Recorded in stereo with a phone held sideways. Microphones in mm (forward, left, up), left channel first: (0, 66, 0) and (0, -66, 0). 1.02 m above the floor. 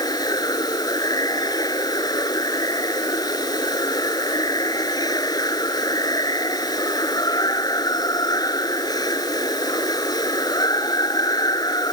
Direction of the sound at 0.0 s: 30° left (ahead or behind).